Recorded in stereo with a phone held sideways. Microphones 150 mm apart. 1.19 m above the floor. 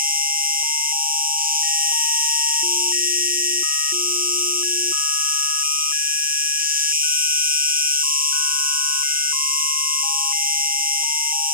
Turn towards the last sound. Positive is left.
turn(degrees=-75)  # may be behind; listen again after turning